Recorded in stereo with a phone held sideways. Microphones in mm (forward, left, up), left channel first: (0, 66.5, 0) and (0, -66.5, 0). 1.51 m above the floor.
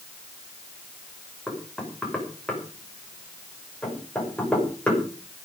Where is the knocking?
5° left (ahead or behind), 5.5 m.